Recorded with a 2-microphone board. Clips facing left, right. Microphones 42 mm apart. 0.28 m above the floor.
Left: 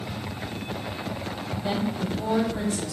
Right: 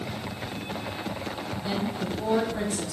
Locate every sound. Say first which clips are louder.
1.6 s a woman speaking: left 3 dB; 30° left (ahead or behind), 1.5 m; by 2.9 s 20° right (ahead or behind), 2 m